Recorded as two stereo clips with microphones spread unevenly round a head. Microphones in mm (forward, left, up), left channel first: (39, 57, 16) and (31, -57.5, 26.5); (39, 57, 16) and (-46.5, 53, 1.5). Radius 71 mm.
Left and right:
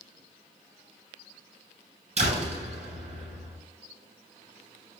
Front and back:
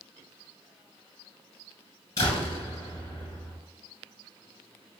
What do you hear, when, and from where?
2.2 s a door slam: 65° right, 7.5 m